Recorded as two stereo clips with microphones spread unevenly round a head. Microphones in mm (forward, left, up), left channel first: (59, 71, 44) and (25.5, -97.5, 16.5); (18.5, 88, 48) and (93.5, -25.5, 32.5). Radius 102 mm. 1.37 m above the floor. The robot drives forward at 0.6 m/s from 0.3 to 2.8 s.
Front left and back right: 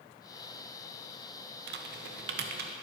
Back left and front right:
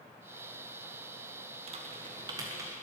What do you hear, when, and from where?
1.7 s typing on a keyboard: 100° right, 1.1 m; by 2.7 s 130° right, 1.4 m